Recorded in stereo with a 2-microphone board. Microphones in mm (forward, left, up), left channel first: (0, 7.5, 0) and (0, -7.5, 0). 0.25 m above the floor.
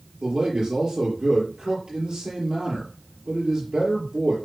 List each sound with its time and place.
0.2 s a man speaking: 75° right (ahead or behind), 5 m